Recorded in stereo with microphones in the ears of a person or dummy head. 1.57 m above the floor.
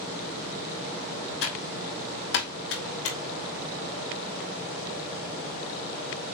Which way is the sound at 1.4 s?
70° left (ahead or behind).